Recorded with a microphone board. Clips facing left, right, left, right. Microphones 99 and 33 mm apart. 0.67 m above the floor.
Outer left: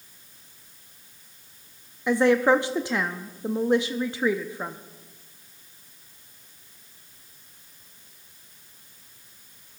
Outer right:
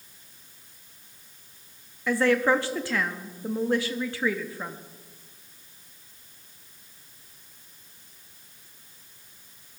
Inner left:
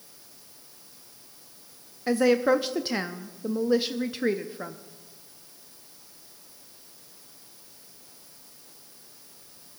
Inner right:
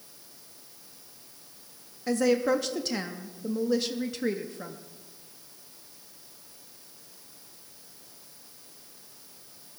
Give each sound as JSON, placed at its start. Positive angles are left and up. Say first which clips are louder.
{"t": 2.1, "sound": "a woman speaking", "louder": "outer left 3 dB, inner left 3 dB", "side_deg": 20, "distance_m": 0.5}